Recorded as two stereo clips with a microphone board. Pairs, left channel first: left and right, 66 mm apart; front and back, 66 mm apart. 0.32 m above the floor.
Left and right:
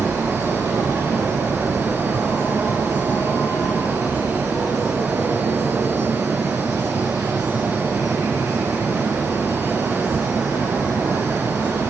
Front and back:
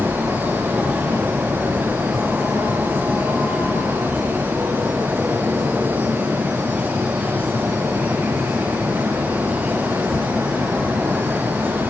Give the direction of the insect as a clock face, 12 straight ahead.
4 o'clock.